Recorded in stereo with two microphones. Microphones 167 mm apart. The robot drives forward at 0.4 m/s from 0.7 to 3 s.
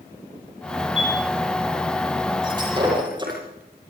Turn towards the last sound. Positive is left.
turn(degrees=-25)  # may be behind; listen again after turning